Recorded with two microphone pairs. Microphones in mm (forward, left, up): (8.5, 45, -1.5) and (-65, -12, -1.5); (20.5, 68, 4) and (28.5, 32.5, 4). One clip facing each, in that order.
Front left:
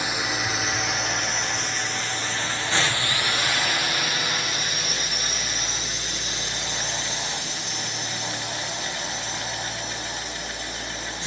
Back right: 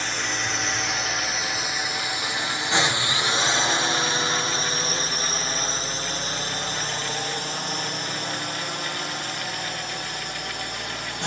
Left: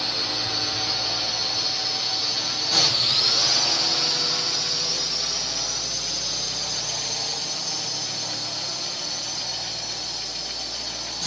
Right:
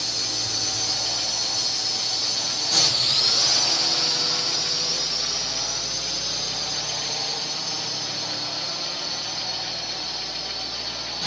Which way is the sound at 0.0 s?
105° left.